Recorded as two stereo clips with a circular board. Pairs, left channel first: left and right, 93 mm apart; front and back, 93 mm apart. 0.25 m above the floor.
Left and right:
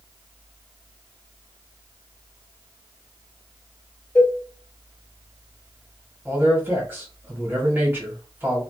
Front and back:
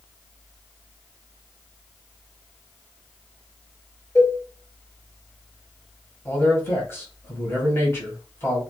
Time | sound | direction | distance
4.2 | a cowbell | 30° left | 1.4 m
6.2 | a man speaking | 40° right | 1.3 m